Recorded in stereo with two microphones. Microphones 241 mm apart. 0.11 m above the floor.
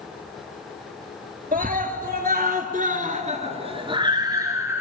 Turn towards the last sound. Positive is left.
turn(degrees=-10)  # may be behind; listen again after turning